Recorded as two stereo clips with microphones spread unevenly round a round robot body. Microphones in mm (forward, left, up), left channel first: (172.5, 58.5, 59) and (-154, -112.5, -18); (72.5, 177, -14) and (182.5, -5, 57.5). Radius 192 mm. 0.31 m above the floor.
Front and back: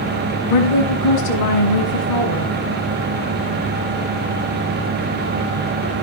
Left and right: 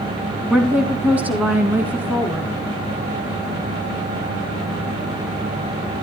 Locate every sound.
0.5 s a woman speaking: 35° left, 3 m; by 2.5 s 25° left, 4.5 m